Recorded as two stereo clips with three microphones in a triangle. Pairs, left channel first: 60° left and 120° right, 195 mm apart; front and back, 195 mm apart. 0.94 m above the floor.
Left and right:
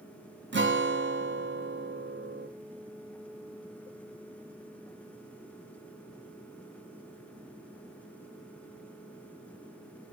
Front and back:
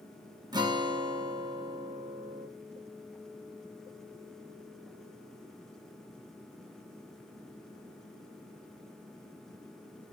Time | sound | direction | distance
0.5 | a guitar | 115° right | 0.5 m